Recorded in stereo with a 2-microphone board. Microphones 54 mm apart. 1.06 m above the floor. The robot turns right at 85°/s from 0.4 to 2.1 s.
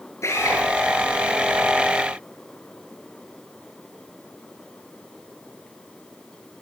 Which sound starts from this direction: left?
A drill, at 0.2 s.